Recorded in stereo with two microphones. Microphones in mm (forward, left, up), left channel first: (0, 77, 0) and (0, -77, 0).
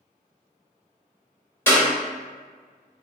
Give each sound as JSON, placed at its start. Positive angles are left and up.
{"t": 1.7, "sound": "a clap", "side_deg": 15, "distance_m": 1.7}